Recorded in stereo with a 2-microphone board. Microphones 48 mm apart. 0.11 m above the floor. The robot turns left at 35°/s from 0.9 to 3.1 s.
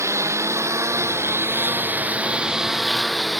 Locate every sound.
0.0 s a lawn mower: 105° right; by 3.4 s 175° left